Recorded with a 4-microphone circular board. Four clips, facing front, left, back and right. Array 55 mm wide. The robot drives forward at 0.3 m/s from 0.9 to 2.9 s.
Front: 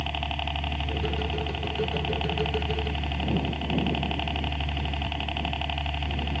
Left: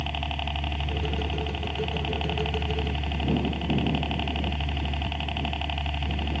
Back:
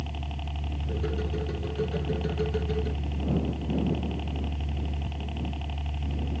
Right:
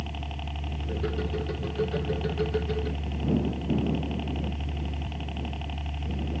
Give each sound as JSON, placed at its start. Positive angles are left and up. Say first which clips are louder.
{"t": 0.0, "sound": "a helicopter", "louder": "left 6 dB, front 7 dB", "azimuth_deg": 30}